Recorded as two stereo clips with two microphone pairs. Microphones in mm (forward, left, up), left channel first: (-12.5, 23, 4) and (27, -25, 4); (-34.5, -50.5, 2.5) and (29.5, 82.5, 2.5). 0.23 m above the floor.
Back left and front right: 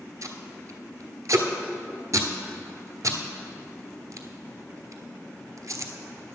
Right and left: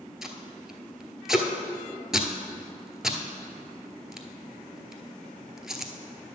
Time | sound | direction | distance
0.2 | tape being pulled | 20° right | 0.9 m